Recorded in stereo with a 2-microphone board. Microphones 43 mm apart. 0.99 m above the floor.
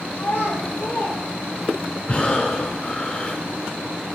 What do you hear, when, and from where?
0.1 s a child speaking: 60° left (ahead or behind), 2 m; by 2.0 s 40° left (ahead or behind), 1.2 m
2.1 s breathing: 25° left (ahead or behind), 0.9 m